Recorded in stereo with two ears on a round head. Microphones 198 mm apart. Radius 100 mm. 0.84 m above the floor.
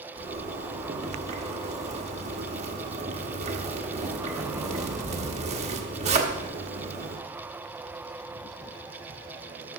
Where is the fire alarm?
No fire alarm in this recording.